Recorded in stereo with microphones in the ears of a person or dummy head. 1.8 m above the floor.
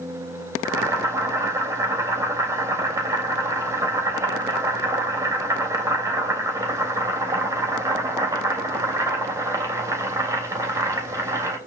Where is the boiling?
20° right (ahead or behind), 3 m.